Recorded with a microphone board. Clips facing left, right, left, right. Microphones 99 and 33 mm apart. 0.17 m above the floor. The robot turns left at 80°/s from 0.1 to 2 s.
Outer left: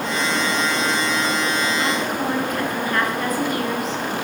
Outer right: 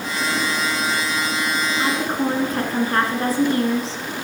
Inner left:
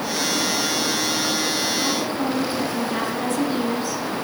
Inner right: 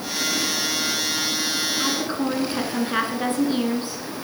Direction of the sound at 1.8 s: 20° right (ahead or behind).